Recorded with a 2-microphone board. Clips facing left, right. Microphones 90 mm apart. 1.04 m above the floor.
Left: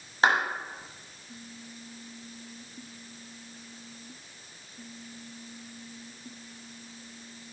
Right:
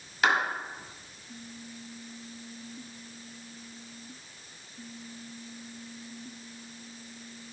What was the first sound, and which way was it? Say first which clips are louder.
A clap: left 2 dB; 30° left (ahead or behind).